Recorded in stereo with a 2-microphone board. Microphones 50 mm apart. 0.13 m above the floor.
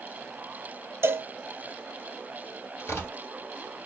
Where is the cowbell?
55° right (ahead or behind), 0.8 m.